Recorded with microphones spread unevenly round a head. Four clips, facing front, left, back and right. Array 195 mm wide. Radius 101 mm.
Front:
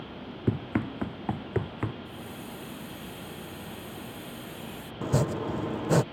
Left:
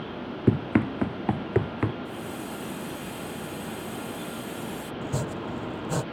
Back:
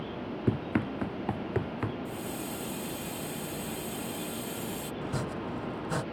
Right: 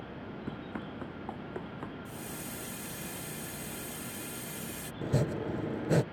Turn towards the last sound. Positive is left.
turn(degrees=-25)